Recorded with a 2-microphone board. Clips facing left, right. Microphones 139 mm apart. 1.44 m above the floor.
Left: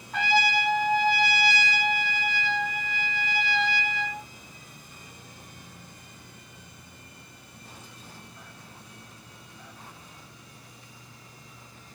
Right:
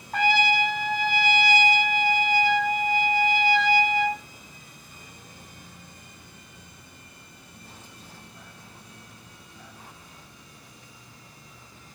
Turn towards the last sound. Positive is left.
turn(degrees=-45)  # may be behind; listen again after turning